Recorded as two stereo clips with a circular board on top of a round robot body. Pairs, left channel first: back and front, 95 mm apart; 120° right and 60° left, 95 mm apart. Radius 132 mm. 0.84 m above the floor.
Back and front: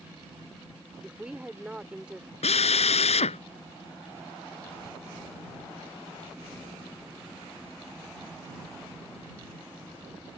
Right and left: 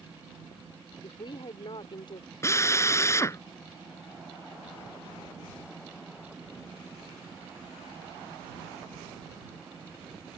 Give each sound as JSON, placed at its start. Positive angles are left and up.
{"t": 1.0, "sound": "a woman speaking", "azimuth_deg": -80}
{"t": 2.4, "sound": "a drill", "azimuth_deg": 175}